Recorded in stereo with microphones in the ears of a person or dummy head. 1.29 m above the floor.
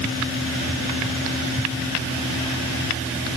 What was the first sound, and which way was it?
Only background noise.